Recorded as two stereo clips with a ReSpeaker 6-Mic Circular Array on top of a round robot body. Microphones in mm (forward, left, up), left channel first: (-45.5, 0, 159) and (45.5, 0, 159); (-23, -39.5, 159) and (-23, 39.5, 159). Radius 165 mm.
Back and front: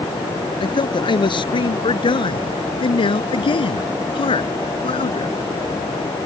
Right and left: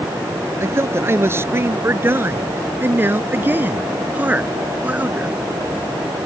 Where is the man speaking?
145° left; by 5.4 s 160° left.